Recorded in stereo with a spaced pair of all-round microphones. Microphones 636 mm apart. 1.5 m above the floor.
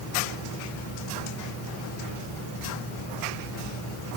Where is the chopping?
No chopping in this recording.